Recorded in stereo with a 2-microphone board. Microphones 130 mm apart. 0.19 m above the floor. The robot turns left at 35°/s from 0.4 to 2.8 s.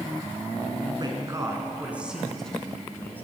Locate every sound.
1.0 s a man speaking: 135° right, 2 m; by 3.2 s 165° left, 2 m